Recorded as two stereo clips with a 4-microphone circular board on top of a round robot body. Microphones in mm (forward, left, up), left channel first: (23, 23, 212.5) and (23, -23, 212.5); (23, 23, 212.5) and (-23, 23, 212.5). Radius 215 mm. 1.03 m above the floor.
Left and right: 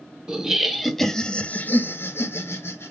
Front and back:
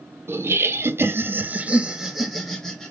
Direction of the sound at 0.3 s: 160° right.